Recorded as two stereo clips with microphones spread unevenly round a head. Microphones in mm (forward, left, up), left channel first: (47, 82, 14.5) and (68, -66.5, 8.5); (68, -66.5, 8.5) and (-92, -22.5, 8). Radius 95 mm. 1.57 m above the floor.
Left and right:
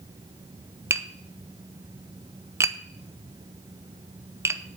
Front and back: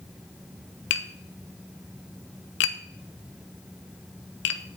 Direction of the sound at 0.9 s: 10° right.